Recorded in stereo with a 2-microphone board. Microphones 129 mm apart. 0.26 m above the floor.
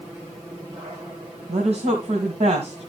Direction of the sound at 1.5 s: 55° right (ahead or behind).